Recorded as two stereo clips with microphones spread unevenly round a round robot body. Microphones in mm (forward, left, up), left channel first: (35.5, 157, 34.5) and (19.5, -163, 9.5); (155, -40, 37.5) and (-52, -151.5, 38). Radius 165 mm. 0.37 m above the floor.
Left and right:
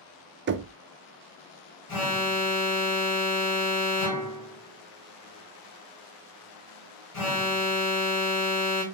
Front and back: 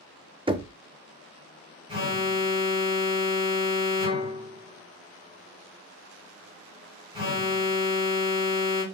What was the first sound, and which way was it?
Knocking, 95° right.